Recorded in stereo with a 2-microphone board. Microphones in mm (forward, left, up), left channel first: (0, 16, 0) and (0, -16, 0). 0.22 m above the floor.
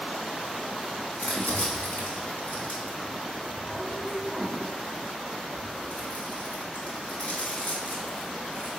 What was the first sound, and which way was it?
Crumpling, 55° left (ahead or behind).